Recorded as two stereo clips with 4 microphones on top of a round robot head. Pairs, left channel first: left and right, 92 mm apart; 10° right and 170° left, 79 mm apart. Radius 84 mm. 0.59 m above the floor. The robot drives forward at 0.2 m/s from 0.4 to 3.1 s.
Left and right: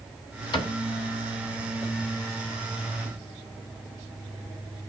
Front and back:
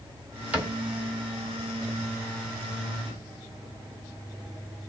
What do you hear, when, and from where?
0.5 s a cupboard door: 100° left, 1.9 m; by 0.8 s 105° left, 1.9 m